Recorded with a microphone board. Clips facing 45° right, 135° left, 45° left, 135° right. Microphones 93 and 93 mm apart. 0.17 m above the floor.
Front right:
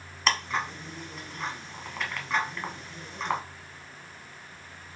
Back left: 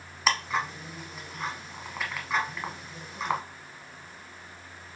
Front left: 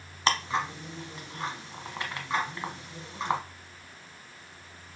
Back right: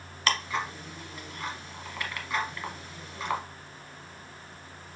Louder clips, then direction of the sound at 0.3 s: Back left 1 dB, front left 2 dB; 55° left.